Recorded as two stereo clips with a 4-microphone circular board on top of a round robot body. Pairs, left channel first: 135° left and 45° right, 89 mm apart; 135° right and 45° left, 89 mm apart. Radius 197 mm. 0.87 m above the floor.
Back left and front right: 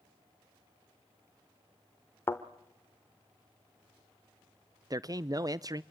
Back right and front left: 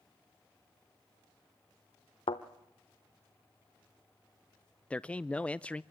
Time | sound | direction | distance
2.3 | a thud | 160° right | 0.8 m
4.9 | a man speaking | 65° right | 0.7 m